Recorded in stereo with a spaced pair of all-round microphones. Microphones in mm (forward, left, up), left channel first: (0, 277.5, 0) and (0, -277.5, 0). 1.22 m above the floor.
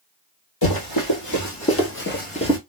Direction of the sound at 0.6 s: 40° left (ahead or behind).